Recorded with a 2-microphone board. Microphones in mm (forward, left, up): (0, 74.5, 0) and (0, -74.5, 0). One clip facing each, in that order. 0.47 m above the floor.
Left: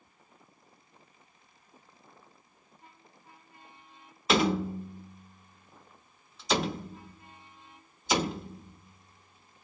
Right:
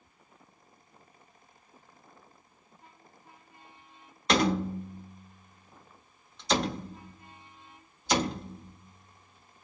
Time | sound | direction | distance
4.3 | a door slam | 5° left (ahead or behind) | 0.9 m